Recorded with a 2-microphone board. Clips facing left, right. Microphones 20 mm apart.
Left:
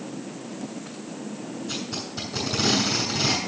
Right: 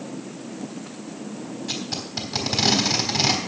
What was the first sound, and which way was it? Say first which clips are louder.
Tape being pulled: right 4 dB; 50° right (ahead or behind).